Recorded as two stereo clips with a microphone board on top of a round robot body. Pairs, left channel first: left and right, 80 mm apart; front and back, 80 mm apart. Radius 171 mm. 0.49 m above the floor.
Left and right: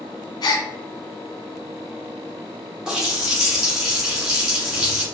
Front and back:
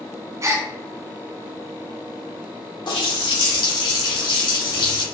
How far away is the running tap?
About 1.7 m.